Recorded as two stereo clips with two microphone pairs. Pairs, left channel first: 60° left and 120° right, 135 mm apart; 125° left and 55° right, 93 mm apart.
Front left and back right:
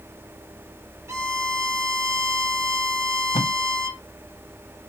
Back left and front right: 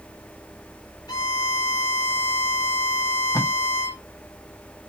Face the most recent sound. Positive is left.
turn(degrees=85)